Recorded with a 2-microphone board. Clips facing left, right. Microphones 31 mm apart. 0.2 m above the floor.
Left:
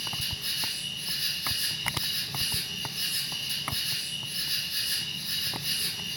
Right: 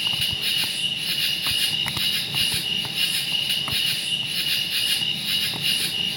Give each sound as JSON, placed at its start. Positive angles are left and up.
{"t": 0.0, "sound": "an insect", "side_deg": -60, "distance_m": 0.8}